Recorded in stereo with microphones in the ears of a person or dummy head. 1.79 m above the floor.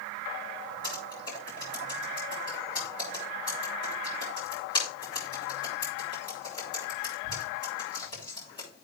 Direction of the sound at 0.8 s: 35° left (ahead or behind).